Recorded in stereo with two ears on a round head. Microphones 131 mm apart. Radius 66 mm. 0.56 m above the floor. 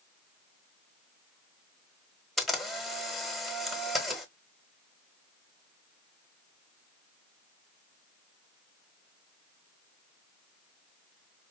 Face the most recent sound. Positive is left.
turn(degrees=0)  # may be behind; listen again after turning